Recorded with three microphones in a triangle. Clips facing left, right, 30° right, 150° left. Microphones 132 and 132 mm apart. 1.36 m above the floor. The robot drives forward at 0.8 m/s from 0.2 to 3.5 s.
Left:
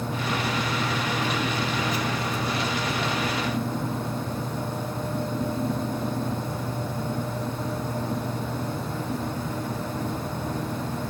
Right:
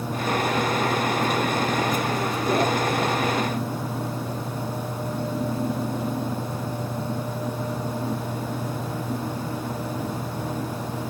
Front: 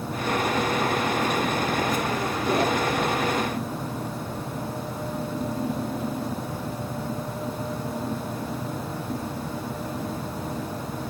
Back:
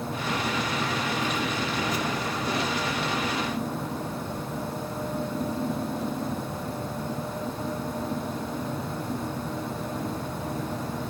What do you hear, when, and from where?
Only background noise.